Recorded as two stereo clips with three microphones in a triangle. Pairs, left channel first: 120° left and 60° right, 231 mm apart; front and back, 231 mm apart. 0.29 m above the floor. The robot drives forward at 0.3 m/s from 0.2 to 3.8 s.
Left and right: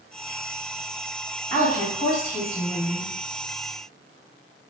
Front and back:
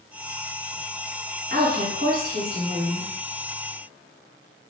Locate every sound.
1.5 s a woman speaking: 170° right, 1.9 m